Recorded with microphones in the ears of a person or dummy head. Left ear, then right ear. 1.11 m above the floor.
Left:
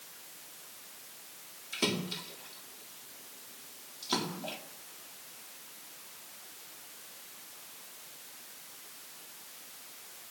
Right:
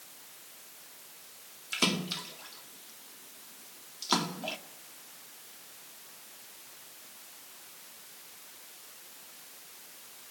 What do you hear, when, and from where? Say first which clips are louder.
1.7 s a splash: right 3 dB; 55° right (ahead or behind), 1.9 m